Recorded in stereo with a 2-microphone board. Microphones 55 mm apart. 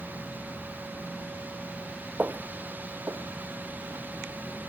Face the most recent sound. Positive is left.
turn(degrees=-75)  # may be behind; listen again after turning